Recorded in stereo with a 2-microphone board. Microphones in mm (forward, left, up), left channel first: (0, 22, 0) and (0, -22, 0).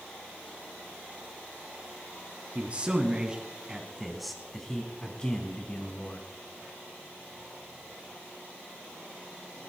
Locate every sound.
2.5 s a man speaking: 30° right (ahead or behind), 1.7 m; by 6.3 s 35° left (ahead or behind), 1.7 m